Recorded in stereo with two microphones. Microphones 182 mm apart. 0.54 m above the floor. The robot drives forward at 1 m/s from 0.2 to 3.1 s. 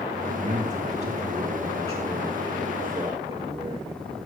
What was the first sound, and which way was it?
A man speaking, 40° right (ahead or behind).